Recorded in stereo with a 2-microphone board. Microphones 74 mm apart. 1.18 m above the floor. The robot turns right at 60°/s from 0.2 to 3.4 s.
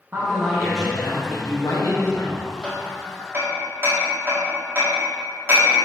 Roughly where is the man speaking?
Ahead right.